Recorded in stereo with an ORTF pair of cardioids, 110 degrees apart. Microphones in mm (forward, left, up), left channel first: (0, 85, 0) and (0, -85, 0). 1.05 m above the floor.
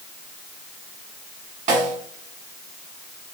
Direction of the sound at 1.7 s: 55° right.